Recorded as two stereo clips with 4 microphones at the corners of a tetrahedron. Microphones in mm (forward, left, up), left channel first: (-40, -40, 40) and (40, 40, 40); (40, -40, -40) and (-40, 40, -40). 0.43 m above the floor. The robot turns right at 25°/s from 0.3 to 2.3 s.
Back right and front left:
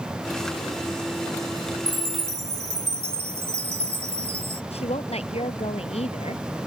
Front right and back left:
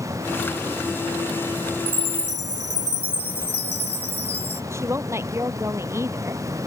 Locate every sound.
1.9 s a chime: 30° right; by 4.6 s 20° right
4.7 s a woman speaking: 160° right